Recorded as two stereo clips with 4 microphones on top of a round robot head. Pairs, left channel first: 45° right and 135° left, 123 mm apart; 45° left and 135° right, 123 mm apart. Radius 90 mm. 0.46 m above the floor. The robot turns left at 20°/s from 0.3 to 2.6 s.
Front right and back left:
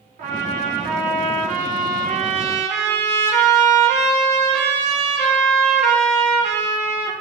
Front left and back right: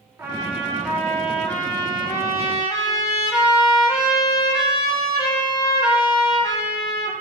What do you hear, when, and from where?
0.2 s a trumpet: 150° left, 0.5 m; by 7.1 s 105° left, 0.5 m